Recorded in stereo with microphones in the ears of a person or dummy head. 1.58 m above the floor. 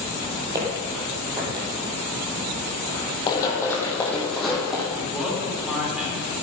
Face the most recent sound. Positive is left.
turn(degrees=-5)  # may be behind; listen again after turning